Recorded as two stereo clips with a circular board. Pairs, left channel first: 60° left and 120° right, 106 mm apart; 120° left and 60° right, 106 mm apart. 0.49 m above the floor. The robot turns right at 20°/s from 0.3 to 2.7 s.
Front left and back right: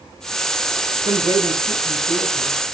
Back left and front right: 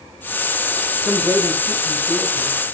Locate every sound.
1.1 s a man speaking: 125° right, 5 m; by 2.6 s 95° right, 5 m